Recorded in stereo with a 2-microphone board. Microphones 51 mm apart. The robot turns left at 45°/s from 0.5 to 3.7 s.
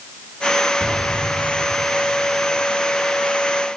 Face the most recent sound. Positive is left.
turn(degrees=40)